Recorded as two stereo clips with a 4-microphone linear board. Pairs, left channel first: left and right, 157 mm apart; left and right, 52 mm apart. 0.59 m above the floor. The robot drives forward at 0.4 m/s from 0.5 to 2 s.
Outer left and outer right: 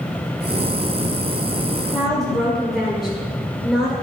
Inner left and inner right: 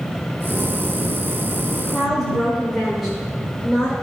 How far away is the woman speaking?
About 1.6 m.